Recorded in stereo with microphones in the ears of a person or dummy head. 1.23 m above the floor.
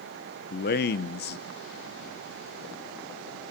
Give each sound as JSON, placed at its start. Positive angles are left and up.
{"t": 0.5, "sound": "a man speaking", "side_deg": 50, "distance_m": 0.8}